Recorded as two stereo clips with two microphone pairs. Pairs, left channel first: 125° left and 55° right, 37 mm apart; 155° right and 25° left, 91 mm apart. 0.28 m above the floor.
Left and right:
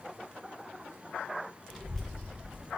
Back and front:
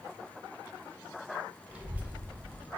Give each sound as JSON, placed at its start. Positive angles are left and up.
{"t": 1.7, "sound": "a child speaking", "azimuth_deg": 50, "distance_m": 0.6}